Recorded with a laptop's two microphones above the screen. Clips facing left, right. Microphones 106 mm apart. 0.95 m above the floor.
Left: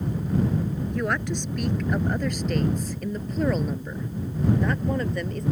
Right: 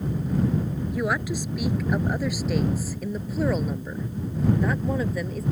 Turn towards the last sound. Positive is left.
turn(degrees=-5)  # may be behind; listen again after turning